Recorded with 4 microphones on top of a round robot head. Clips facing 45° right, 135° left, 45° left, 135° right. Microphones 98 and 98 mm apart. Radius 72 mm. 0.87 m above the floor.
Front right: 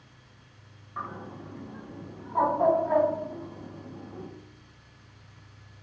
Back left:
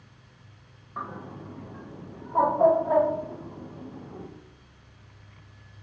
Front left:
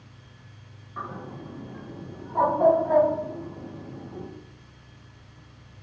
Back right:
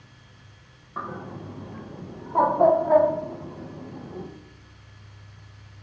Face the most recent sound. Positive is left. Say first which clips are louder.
# back left 1 dB, back right 2 dB
turn(degrees=-160)